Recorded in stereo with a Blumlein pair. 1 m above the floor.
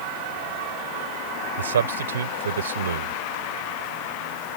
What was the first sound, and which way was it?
A man speaking, 65° right.